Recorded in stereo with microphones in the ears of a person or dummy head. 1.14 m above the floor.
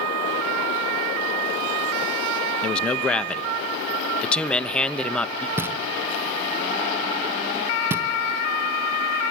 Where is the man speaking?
10° left (ahead or behind), 1.1 m.